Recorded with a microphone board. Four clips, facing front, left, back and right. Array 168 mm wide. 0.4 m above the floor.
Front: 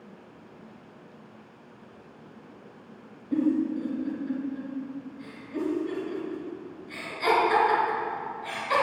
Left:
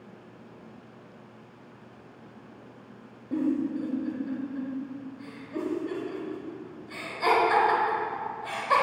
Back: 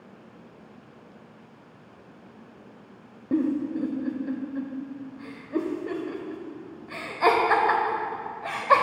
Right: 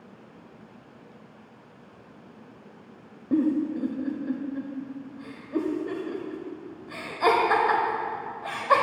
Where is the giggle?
150° right, 0.7 m.